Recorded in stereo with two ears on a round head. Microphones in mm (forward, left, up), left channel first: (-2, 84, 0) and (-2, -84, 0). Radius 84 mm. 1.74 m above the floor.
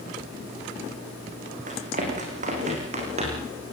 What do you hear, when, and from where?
1.7 s running footsteps: 45° right (ahead or behind), 6.5 m; by 3.5 s 35° right (ahead or behind), 6.5 m